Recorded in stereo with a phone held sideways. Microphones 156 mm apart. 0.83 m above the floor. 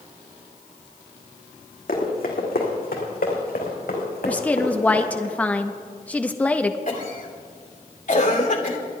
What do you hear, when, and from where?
1.9 s running footsteps: 70° left (ahead or behind), 3 m; by 5.2 s 80° left, 5 m
4.2 s a woman speaking: 10° left (ahead or behind), 0.6 m
6.9 s a cough: 60° left (ahead or behind), 2.5 m